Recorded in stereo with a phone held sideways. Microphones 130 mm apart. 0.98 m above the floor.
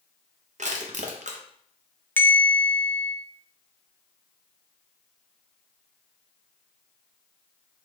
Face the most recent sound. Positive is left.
turn(degrees=15)  # may be behind; listen again after turning